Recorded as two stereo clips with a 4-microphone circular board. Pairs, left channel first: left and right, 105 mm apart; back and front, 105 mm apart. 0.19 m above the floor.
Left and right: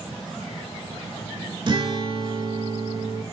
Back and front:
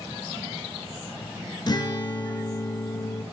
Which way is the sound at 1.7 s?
130° right.